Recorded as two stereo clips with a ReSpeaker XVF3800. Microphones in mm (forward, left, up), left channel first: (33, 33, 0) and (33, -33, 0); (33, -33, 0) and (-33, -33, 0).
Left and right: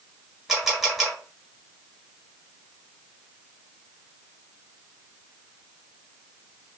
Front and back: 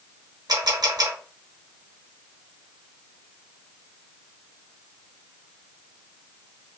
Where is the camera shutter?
175° right, 1.3 m.